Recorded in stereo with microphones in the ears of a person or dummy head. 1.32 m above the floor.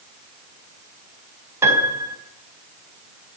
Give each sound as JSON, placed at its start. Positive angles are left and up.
{"t": 1.6, "sound": "a piano", "side_deg": -20, "distance_m": 4.0}